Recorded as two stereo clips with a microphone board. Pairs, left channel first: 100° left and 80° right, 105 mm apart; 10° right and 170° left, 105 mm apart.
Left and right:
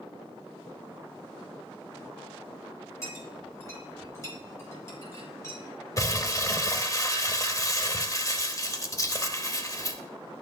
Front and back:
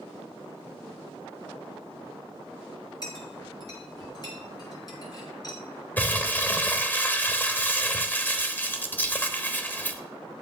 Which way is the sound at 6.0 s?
55° left.